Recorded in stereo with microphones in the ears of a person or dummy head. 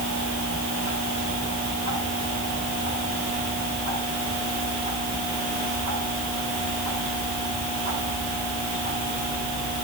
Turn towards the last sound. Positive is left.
No sound to turn to.